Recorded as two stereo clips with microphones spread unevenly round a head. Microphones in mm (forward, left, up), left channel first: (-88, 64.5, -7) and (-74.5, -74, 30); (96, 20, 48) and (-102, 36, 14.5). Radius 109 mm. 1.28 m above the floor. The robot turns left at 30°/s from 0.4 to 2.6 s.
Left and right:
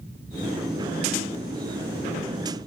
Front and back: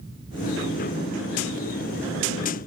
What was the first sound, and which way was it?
Only background noise.